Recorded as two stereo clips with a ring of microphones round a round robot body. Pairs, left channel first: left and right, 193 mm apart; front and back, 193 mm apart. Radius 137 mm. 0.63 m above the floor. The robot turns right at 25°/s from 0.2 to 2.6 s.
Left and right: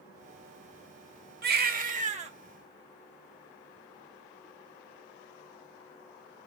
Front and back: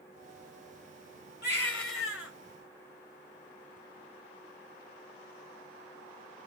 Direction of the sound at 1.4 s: 55° right.